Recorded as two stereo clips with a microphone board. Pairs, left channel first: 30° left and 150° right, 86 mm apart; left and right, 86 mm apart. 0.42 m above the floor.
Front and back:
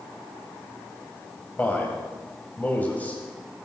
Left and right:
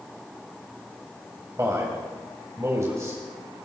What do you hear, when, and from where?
1.6 s a man speaking: 40° right, 2.5 m